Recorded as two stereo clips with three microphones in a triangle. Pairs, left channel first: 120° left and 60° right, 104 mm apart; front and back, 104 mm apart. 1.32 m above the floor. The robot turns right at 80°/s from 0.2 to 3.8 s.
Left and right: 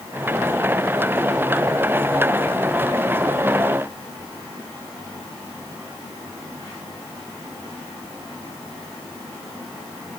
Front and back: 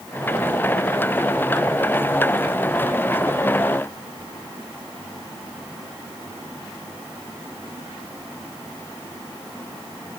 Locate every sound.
Only background noise.